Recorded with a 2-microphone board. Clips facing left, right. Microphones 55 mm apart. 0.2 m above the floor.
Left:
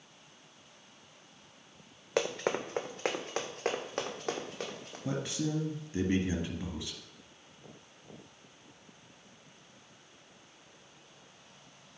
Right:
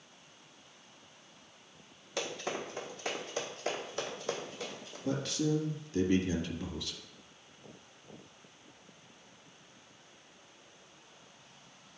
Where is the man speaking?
20° left (ahead or behind), 1.5 m.